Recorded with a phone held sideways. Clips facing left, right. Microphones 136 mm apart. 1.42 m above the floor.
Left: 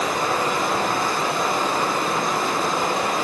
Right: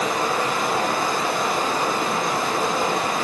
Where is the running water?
30° left (ahead or behind), 0.9 m.